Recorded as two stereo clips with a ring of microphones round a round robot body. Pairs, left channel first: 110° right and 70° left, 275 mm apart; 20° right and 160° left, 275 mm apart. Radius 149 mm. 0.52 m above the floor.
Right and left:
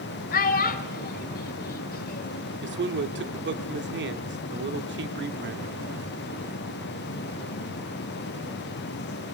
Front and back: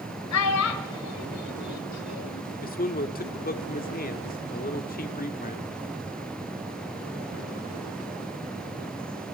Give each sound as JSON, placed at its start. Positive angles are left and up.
{"t": 0.3, "sound": "a child speaking", "azimuth_deg": -55, "distance_m": 1.5}
{"t": 2.6, "sound": "a man speaking", "azimuth_deg": 30, "distance_m": 1.4}